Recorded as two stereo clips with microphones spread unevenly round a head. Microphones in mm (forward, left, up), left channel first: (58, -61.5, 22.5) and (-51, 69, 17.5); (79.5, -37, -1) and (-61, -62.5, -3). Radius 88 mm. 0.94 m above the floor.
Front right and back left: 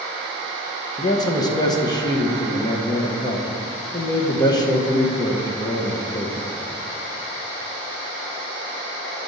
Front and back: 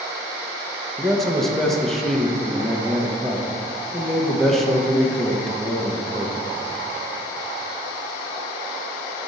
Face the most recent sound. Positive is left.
turn(degrees=-75)